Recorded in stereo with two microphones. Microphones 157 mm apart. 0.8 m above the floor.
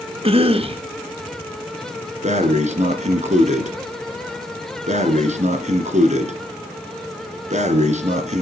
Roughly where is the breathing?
Right.